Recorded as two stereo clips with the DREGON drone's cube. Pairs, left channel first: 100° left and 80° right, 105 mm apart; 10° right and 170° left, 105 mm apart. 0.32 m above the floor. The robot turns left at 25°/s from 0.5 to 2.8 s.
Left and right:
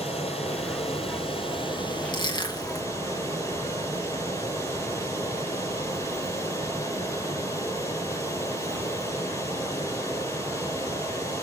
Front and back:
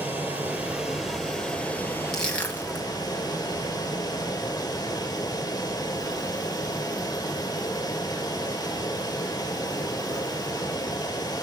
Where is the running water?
100° left, 3 m; by 11.4 s 40° left, 3 m.